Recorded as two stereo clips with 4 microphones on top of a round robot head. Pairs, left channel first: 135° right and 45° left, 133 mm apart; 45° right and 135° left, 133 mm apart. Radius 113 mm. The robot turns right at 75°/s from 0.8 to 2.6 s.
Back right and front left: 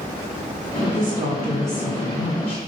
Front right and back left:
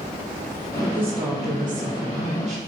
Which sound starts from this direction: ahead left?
A woman speaking, at 0.8 s.